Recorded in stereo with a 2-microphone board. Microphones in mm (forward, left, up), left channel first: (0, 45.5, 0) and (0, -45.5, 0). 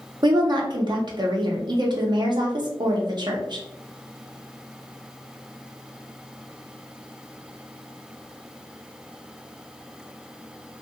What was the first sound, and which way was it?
A woman speaking, 50° right (ahead or behind).